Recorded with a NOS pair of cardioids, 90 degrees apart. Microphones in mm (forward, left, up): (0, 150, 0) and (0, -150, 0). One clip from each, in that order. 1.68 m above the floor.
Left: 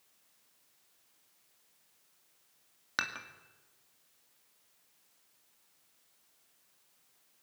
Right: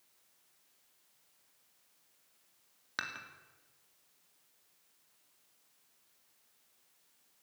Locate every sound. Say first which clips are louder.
3.0 s dishes clattering: left 5 dB; 25° left, 2.5 m